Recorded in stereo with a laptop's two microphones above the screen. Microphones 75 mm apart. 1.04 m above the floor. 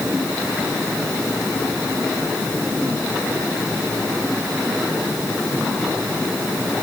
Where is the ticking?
I don't hear ticking.